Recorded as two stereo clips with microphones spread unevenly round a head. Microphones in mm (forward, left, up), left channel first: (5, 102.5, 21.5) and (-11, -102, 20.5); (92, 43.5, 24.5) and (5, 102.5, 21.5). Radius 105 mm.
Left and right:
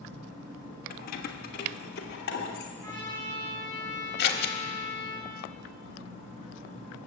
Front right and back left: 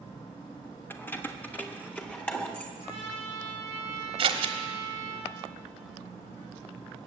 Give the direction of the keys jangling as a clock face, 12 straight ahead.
11 o'clock.